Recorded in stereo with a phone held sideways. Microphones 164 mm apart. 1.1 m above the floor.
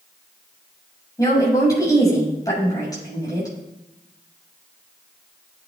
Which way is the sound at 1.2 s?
20° left (ahead or behind).